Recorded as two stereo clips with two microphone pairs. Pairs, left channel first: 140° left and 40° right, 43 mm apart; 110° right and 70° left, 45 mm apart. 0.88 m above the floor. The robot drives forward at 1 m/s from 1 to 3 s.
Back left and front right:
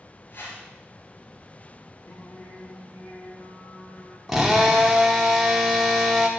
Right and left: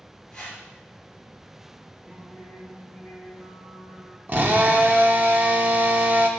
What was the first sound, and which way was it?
A whoosh, 175° right.